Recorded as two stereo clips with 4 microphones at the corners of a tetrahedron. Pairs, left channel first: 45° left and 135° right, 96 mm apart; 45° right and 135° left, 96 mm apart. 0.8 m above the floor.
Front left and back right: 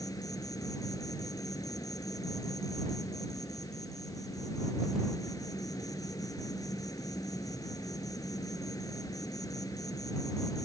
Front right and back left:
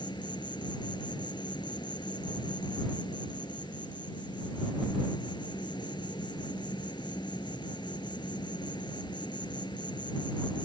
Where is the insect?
5° right.